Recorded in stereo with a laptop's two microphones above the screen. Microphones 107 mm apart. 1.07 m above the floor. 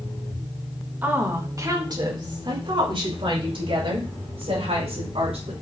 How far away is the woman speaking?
About 1.5 m.